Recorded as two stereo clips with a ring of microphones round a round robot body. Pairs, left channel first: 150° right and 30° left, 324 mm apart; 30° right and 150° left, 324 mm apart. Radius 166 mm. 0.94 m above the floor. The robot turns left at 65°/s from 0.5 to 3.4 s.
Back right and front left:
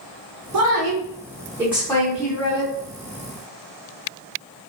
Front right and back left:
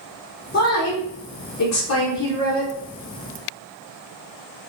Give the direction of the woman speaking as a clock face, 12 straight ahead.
11 o'clock.